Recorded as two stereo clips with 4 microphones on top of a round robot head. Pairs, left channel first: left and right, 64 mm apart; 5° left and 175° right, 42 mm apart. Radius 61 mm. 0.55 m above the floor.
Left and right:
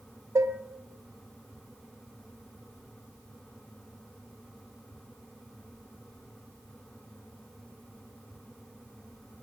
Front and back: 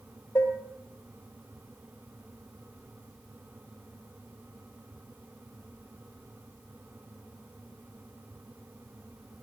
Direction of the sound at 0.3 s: 45° right.